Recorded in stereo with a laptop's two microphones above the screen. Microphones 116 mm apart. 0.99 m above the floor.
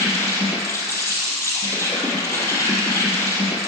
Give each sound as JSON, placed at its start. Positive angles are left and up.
{"t": 0.0, "sound": "an insect", "side_deg": 30, "distance_m": 2.0}